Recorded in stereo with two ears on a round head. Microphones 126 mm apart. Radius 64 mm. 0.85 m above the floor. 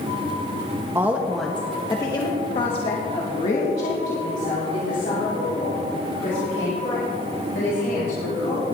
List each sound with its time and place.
0.9 s a woman speaking: 20° right (ahead or behind), 0.7 m; by 8.7 s 65° left (ahead or behind), 4.5 m